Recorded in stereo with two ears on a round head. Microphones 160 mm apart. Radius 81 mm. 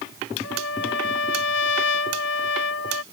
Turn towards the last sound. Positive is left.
turn(degrees=75)  # may be behind; listen again after turning